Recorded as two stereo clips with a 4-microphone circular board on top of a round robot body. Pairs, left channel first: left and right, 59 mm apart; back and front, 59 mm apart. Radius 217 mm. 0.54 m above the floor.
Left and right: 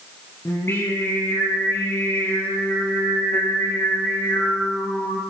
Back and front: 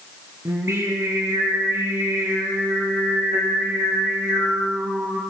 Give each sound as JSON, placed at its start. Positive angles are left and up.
{"t": 0.5, "sound": "singing", "azimuth_deg": 45, "distance_m": 6.0}